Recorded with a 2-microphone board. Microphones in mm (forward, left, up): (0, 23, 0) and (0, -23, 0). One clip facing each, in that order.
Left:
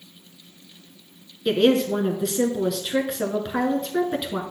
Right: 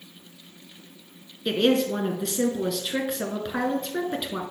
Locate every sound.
1.4 s a woman speaking: centre (ahead or behind), 1.1 m